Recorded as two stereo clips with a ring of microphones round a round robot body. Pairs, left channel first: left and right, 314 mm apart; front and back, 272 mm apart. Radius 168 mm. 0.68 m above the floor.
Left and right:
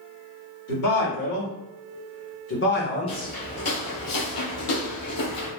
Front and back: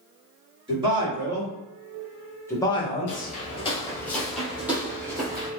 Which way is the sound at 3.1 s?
25° left.